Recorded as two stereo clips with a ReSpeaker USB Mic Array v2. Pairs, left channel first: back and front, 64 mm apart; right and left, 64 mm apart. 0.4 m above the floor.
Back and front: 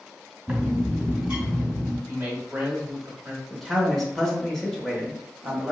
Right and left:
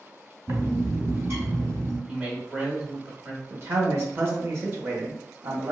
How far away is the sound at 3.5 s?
About 1.0 m.